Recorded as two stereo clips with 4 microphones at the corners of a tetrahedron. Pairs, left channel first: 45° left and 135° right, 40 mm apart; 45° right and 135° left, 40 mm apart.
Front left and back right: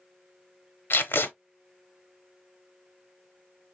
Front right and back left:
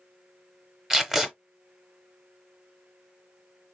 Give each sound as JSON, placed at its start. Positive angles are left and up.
{"t": 0.9, "sound": "tape being pulled", "azimuth_deg": 55, "distance_m": 0.8}